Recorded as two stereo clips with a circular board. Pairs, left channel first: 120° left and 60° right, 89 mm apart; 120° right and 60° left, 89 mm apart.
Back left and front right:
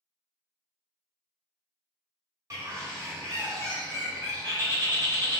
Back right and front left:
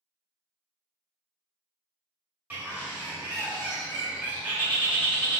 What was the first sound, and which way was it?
A bird, 10° right.